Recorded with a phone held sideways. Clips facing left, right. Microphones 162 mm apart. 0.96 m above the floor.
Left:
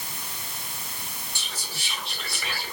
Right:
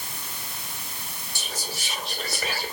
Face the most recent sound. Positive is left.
turn(degrees=-40)  # may be behind; listen again after turning